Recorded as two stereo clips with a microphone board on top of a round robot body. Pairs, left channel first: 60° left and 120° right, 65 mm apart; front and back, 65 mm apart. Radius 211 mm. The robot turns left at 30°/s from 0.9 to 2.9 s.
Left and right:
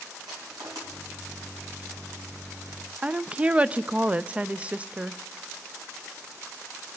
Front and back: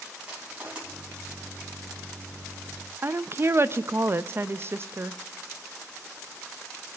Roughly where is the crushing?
Right.